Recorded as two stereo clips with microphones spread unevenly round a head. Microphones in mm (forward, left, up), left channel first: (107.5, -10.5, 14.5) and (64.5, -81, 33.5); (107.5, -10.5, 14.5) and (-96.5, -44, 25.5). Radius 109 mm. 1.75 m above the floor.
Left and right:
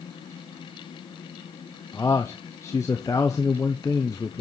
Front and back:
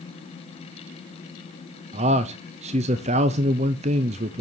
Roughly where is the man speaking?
Behind left.